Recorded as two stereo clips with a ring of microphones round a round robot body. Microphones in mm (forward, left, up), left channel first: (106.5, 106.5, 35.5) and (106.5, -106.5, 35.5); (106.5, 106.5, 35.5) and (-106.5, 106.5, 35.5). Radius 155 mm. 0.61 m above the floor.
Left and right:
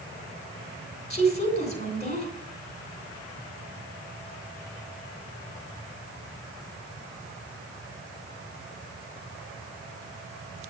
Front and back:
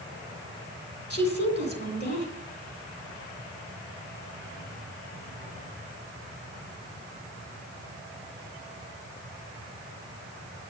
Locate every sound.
1.1 s a woman speaking: 35° left, 3.5 m